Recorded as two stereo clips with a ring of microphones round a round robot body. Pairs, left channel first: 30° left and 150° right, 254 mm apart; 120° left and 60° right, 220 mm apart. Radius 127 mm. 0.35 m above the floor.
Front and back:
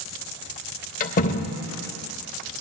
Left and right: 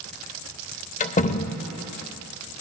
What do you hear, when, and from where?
1.0 s a door slam: 75° left, 0.7 m